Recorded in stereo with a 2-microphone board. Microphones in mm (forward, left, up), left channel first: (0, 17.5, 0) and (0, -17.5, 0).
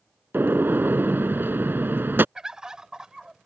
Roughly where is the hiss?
No hiss in this recording.